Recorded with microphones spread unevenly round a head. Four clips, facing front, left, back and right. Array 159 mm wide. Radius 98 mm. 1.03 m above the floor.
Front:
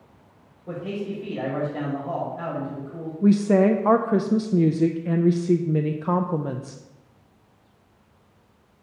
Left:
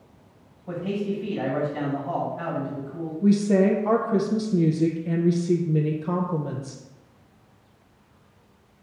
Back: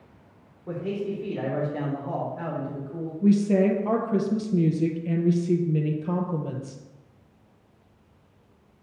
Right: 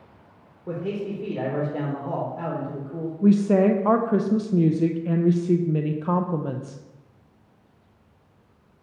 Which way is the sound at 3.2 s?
25° right.